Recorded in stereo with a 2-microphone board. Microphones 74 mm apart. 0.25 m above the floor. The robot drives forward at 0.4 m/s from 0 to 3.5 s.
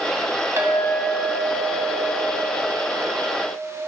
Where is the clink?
40° right (ahead or behind), 1.1 m; by 3.7 s 20° right (ahead or behind), 1.9 m.